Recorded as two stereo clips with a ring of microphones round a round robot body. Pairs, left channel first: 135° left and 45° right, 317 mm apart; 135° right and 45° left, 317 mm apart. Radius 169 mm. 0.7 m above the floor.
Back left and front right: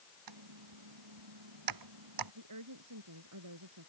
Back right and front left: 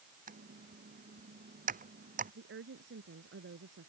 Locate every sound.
0.3 s typing on a keyboard: 20° right
2.4 s a woman speaking: 10° right